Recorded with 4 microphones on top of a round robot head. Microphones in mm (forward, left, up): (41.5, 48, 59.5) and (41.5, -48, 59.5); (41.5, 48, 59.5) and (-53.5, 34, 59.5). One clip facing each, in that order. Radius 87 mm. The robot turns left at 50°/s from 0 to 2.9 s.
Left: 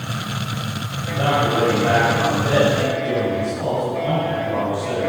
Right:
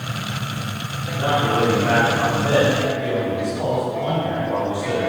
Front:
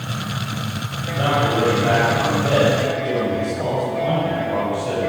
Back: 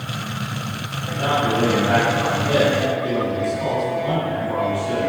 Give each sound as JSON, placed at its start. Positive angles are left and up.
{"t": 1.1, "sound": "a man speaking", "azimuth_deg": 70, "distance_m": 5.5}